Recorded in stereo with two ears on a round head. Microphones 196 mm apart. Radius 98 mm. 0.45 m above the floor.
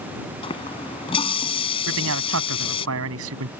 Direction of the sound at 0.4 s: 25° left (ahead or behind).